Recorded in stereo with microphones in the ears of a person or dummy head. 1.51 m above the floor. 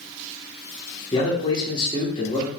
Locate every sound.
1.1 s a man speaking: 25° left (ahead or behind), 1.3 m